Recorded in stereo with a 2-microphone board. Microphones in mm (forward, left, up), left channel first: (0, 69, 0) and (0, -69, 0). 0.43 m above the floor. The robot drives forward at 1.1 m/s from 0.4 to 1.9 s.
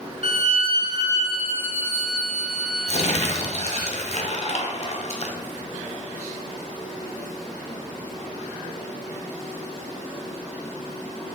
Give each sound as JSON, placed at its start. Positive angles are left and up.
{"t": 0.2, "sound": "a violin", "side_deg": -50, "distance_m": 0.5}
{"t": 2.9, "sound": "crumpling", "side_deg": 55, "distance_m": 1.0}